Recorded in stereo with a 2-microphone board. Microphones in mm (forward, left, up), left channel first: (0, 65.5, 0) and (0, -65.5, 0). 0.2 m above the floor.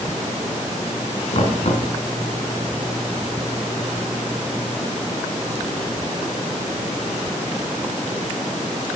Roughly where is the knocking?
Left.